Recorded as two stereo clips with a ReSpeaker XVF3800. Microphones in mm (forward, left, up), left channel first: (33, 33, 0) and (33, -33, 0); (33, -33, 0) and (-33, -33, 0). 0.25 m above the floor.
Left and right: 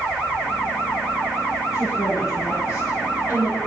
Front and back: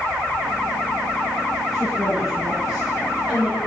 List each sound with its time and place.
1.7 s a woman speaking: 95° left, 3 m